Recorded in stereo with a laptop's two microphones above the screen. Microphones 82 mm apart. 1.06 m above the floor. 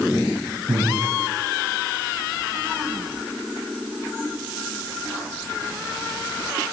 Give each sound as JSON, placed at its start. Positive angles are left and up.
{"t": 0.7, "sound": "breathing", "side_deg": -80, "distance_m": 3.5}